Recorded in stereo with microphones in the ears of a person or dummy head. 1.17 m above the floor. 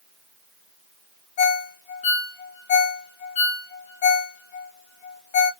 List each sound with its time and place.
1.4 s a ringtone: 35° left (ahead or behind), 0.7 m